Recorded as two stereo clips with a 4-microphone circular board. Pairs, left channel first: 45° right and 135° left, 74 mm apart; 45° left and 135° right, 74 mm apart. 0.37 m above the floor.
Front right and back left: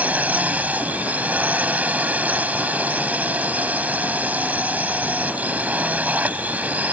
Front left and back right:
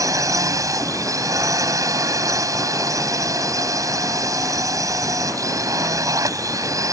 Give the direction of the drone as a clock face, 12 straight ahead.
5 o'clock.